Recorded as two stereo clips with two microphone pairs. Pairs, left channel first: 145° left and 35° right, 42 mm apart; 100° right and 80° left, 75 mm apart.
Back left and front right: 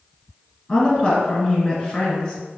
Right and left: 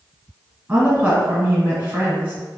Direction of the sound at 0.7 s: 120° left.